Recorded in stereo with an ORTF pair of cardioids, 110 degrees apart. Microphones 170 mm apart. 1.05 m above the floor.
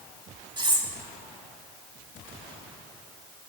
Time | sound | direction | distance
0.6 | cutlery clinking | 25° right | 1.9 m